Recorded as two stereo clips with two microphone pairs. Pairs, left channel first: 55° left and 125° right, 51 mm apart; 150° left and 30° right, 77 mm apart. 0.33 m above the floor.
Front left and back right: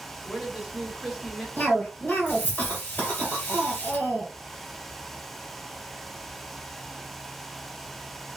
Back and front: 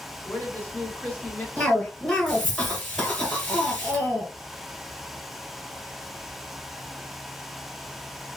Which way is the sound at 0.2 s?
160° left.